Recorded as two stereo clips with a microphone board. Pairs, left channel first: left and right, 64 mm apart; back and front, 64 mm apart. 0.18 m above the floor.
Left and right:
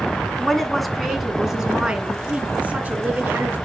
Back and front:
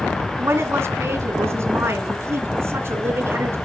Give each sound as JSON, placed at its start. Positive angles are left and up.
{"t": 0.3, "sound": "a woman speaking", "azimuth_deg": 10, "distance_m": 2.0}